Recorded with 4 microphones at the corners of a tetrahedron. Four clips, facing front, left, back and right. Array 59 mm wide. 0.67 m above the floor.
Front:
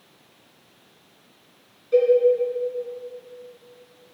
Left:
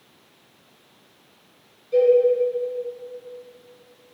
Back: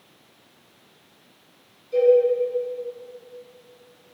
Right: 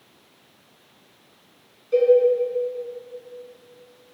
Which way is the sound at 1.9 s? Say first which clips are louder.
Even, even; 35° right.